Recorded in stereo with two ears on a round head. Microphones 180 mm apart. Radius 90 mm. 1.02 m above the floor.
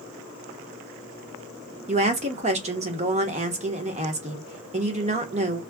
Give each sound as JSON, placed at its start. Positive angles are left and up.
{"t": 1.9, "sound": "a woman speaking", "side_deg": -35, "distance_m": 1.0}